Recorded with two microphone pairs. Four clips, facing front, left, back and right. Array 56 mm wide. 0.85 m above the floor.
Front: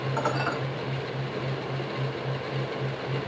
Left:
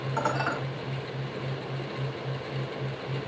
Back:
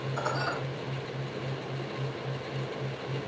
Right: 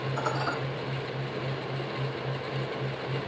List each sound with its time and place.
0.2 s dishes clattering: 40° left, 3.5 m